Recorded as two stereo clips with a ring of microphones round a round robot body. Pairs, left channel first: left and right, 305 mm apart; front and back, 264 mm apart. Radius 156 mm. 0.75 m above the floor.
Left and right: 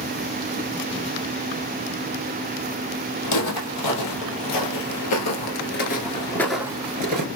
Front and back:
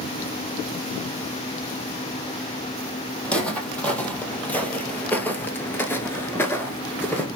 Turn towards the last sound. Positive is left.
turn(degrees=-80)